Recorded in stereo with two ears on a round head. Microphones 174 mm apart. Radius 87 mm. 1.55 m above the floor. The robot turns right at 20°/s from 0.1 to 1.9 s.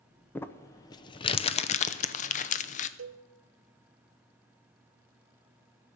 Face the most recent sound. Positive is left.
turn(degrees=-70)  # may be behind; listen again after turning